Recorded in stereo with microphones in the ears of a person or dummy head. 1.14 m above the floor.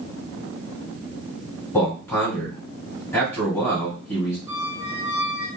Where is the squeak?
15° right (ahead or behind), 1.0 m.